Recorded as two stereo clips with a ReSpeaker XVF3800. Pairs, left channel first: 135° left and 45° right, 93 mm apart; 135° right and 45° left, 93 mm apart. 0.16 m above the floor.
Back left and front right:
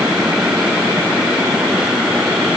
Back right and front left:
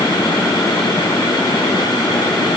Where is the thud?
No thud in this recording.